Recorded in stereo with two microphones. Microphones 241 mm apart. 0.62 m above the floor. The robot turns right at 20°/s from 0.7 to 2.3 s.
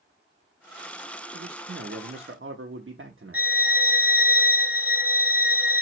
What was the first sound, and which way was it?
A man speaking, 55° right (ahead or behind).